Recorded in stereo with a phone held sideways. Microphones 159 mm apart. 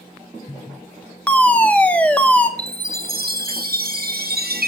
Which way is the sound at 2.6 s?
75° right (ahead or behind).